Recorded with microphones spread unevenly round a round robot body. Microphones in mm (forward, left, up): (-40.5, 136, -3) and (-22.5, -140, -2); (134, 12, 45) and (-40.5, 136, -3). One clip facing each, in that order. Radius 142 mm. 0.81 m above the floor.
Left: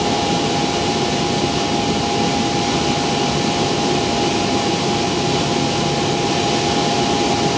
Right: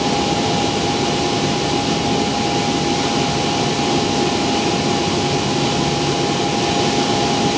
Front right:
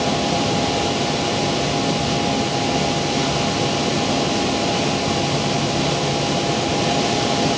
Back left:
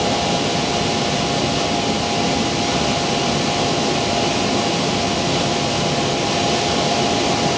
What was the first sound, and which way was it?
Only background noise.